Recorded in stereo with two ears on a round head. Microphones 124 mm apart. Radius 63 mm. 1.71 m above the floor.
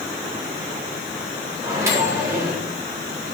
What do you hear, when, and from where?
1.6 s a microwave: 20° right (ahead or behind), 4 m